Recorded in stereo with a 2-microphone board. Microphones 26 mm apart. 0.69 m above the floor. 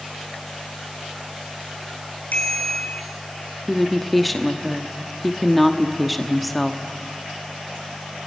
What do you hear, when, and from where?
2.3 s a bicycle bell: 85° left, 5 m
3.7 s a woman speaking: 5° left (ahead or behind), 1.0 m